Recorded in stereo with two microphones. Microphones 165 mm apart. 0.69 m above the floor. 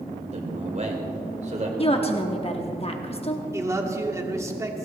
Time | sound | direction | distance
0.3 | a man speaking | 45° right (ahead or behind) | 2.5 m
1.8 | a woman speaking | 35° left (ahead or behind) | 1.0 m
3.5 | a man speaking | 15° right (ahead or behind) | 1.2 m